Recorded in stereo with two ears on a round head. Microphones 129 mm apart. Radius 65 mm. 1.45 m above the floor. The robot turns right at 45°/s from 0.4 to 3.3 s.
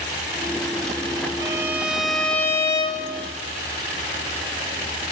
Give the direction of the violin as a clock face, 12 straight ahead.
1 o'clock.